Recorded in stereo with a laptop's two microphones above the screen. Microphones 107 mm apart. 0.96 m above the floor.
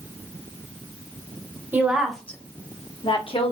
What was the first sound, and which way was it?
A woman speaking, 15° right (ahead or behind).